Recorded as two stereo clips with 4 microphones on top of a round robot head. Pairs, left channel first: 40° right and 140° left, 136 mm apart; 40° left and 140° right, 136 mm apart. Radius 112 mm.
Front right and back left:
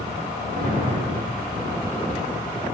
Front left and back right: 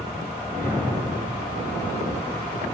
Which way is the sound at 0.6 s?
115° left.